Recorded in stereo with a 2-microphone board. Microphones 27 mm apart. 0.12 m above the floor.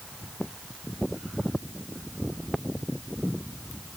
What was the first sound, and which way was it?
Only background noise.